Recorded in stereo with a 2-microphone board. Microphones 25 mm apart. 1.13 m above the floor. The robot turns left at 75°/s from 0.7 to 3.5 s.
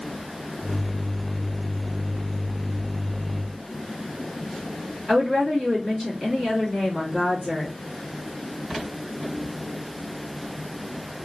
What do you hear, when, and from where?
5.1 s a woman speaking: 10° left (ahead or behind), 2 m